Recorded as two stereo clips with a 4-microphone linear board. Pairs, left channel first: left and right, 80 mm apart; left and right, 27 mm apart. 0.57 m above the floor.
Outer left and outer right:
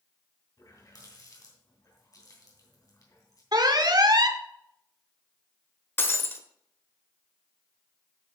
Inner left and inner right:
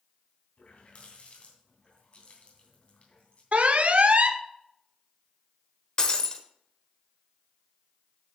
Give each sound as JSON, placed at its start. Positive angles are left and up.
{"t": 0.6, "sound": "a running tap", "side_deg": 50, "distance_m": 2.5}
{"t": 3.5, "sound": "an alarm", "side_deg": -60, "distance_m": 0.9}
{"t": 6.0, "sound": "breaking glass", "side_deg": 30, "distance_m": 1.0}